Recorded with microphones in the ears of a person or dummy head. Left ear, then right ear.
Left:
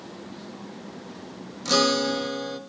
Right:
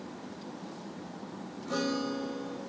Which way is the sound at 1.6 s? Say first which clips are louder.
Left 12 dB; 80° left.